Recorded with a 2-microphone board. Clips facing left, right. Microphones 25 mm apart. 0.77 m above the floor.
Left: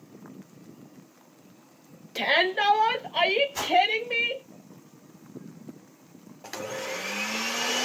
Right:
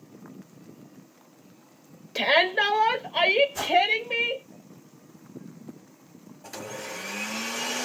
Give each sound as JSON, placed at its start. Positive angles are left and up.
{"t": 2.1, "sound": "a shout", "side_deg": -20, "distance_m": 0.9}
{"t": 3.5, "sound": "a whoosh", "side_deg": 55, "distance_m": 1.6}
{"t": 6.4, "sound": "a blender", "side_deg": 30, "distance_m": 0.8}